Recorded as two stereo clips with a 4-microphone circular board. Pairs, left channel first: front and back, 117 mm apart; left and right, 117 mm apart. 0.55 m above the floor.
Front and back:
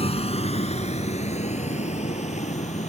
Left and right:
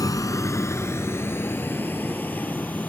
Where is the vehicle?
30° left; by 2.9 s 15° left.